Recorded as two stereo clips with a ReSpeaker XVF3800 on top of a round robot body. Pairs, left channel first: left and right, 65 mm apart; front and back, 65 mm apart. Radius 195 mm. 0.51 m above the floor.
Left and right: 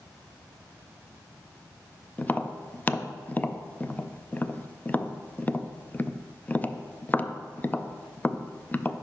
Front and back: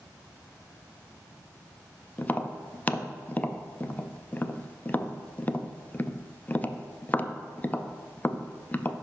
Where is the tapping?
45° left, 0.6 m.